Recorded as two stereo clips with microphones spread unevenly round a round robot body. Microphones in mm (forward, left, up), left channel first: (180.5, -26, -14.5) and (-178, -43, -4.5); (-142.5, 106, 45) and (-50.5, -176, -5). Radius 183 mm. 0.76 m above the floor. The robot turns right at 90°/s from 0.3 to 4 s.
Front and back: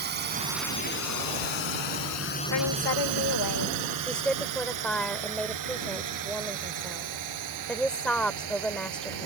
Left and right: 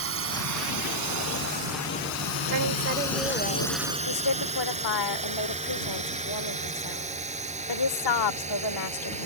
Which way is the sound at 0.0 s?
115° right.